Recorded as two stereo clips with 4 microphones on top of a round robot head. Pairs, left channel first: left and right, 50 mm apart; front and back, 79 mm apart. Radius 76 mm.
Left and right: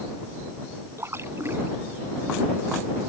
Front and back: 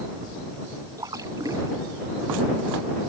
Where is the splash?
130° right.